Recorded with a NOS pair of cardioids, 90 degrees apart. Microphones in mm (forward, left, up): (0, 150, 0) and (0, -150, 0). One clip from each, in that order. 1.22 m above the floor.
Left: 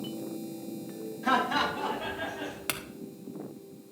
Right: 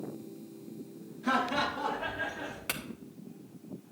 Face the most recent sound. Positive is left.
turn(degrees=25)